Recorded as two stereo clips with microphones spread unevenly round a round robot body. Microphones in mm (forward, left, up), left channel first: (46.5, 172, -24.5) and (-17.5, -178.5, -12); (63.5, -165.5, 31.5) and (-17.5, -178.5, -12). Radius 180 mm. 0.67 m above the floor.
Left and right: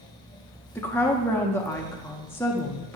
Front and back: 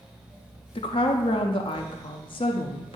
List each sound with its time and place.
0.8 s a woman speaking: 5° left, 0.6 m